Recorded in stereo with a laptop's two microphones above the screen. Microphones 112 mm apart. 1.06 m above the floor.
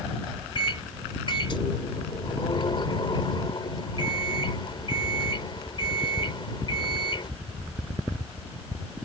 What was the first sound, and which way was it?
A microwave, 45° left (ahead or behind).